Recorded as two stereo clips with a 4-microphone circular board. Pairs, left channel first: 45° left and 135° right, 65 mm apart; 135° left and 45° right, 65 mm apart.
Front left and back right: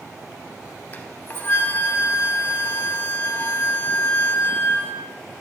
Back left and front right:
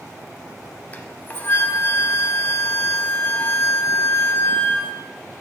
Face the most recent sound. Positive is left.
turn(degrees=90)